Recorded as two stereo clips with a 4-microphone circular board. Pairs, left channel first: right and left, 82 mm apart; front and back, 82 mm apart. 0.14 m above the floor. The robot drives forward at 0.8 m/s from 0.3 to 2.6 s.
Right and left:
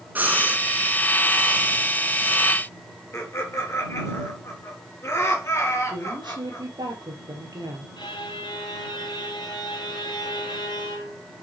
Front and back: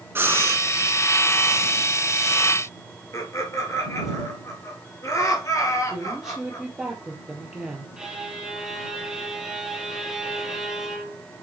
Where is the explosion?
I don't hear an explosion.